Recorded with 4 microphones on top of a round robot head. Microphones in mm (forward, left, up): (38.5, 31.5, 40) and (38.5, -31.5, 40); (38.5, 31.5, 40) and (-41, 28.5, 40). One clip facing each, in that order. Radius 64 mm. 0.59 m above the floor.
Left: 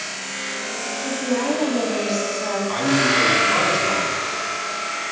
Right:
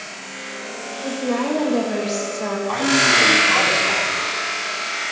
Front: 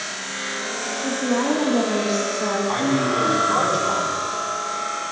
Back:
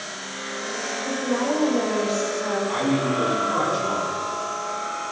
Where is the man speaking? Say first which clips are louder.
Right 2 dB, front 2 dB; 60° right, 4 m.